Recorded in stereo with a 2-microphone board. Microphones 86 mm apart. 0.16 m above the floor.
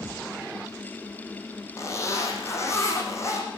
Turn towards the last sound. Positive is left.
turn(degrees=35)  # may be behind; listen again after turning